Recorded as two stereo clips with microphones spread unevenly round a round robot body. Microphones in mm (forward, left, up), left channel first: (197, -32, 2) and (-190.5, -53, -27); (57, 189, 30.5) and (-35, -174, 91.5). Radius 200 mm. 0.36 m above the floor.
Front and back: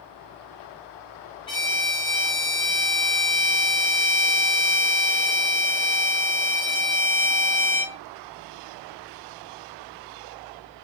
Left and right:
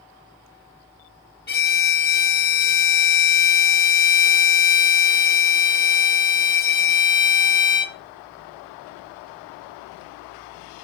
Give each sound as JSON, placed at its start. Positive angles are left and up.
{"t": 1.5, "sound": "a violin", "azimuth_deg": 80, "distance_m": 0.8}